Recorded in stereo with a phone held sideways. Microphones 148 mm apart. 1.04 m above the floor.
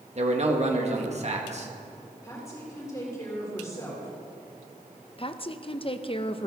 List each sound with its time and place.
0.1 s a man speaking: 50° right (ahead or behind), 1.9 m
2.2 s a woman speaking: 20° left (ahead or behind), 3.5 m
5.2 s a woman speaking: 40° left (ahead or behind), 0.7 m